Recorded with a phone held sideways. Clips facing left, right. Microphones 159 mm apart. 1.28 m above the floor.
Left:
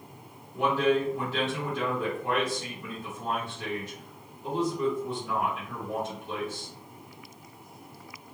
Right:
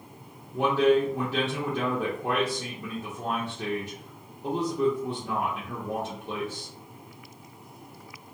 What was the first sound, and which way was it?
A man speaking, 60° right (ahead or behind).